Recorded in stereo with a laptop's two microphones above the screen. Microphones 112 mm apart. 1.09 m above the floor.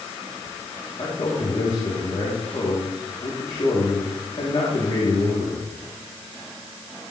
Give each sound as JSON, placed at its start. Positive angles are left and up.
{"t": 1.0, "sound": "a man speaking", "side_deg": 55, "distance_m": 2.5}